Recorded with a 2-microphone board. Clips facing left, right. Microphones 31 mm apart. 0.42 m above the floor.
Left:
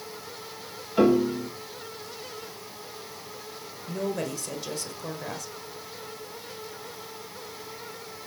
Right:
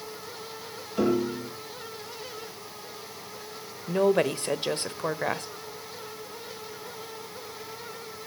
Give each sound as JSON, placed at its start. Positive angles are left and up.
{"t": 1.0, "sound": "a piano", "side_deg": 30, "distance_m": 5.5}
{"t": 3.9, "sound": "a woman speaking", "side_deg": -50, "distance_m": 1.3}